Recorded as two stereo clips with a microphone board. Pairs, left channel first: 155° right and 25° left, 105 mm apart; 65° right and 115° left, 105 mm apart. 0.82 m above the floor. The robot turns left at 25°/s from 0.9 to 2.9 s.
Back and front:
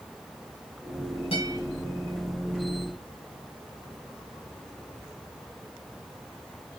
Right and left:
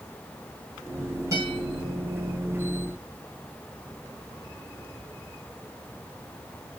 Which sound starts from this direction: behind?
A guitar, at 1.3 s.